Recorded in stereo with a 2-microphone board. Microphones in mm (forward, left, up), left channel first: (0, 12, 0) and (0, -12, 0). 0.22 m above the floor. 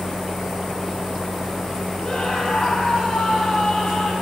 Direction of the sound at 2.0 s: 35° left (ahead or behind).